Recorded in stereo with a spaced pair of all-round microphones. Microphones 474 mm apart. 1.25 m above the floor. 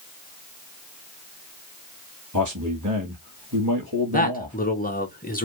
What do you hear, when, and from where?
2.3 s a man speaking: 35° right (ahead or behind), 1.7 m
4.1 s a man speaking: 15° left (ahead or behind), 1.2 m